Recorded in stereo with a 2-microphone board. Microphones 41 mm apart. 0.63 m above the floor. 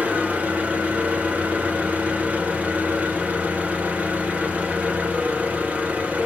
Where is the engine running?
40° right (ahead or behind), 1.2 m.